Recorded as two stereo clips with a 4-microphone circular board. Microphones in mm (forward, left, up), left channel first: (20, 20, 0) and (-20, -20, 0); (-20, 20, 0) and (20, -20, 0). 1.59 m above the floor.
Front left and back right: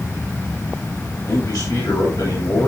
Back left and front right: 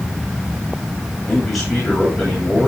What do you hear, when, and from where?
1.3 s a man speaking: 50° left, 10 m